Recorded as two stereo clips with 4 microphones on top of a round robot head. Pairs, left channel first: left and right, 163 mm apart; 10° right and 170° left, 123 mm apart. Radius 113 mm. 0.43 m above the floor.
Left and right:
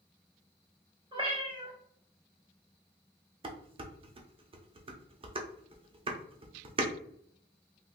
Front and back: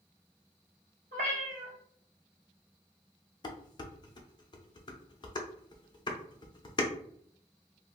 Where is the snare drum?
No snare drum in this recording.